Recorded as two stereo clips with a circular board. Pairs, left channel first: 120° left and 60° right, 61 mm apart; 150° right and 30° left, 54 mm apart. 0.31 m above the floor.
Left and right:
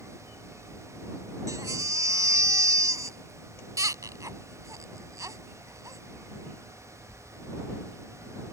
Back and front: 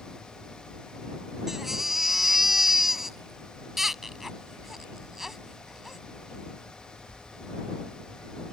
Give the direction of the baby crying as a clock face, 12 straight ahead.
2 o'clock.